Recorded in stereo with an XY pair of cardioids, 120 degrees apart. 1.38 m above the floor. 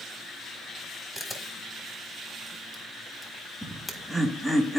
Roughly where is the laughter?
Ahead.